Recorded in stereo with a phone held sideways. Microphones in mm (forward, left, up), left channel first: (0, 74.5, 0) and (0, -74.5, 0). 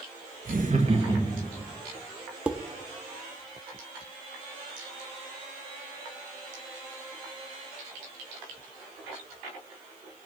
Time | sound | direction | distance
0.5 | laughter | 70° right (ahead or behind) | 1.0 m
2.5 | dishes clattering | 10° right (ahead or behind) | 0.6 m